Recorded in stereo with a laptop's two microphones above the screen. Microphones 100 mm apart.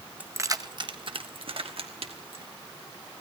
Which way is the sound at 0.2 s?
15° right (ahead or behind).